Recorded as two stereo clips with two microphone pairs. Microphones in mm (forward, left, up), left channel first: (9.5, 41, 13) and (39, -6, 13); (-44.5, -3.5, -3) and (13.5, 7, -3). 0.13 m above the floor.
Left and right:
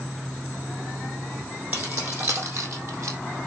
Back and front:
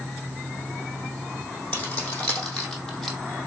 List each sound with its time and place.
1.7 s keys jangling: 105° right, 4 m; by 3.2 s 85° right, 3 m